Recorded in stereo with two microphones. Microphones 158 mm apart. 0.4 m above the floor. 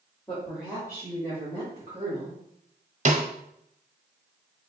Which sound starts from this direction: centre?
A woman speaking, at 0.3 s.